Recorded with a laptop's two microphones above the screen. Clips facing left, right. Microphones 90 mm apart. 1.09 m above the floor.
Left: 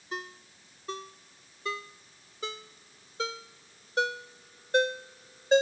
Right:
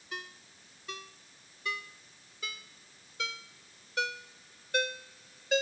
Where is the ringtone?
35° left (ahead or behind).